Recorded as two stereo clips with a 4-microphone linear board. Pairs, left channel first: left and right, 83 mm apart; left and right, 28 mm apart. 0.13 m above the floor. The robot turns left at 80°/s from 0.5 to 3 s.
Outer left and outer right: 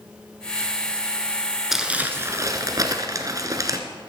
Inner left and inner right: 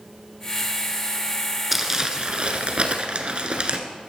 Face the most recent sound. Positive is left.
turn(degrees=-110)